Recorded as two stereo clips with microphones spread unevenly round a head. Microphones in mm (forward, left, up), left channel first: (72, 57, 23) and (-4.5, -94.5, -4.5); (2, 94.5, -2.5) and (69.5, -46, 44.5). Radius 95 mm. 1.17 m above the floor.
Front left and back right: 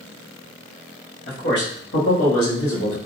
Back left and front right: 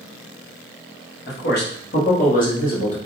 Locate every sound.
1.3 s a man speaking: 105° left, 1.3 m; by 3.0 s 75° left, 1.7 m